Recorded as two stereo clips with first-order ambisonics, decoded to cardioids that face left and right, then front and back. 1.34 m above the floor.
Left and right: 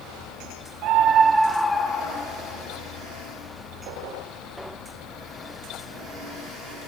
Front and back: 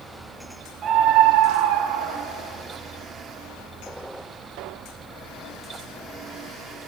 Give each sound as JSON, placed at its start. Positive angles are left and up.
{"t": 0.8, "sound": "a scream", "azimuth_deg": -120, "distance_m": 0.8}